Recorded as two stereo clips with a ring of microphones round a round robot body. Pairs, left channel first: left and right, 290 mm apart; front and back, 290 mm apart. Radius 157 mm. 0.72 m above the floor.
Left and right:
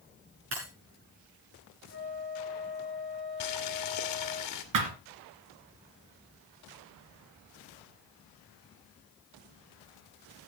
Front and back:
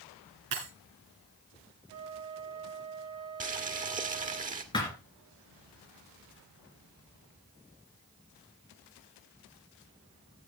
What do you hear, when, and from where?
0.5 s breaking glass: 140° right, 6 m
1.9 s a flute: 160° left, 4 m
3.4 s boiling: 120° left, 1.7 m
4.7 s a thud: 75° right, 2.5 m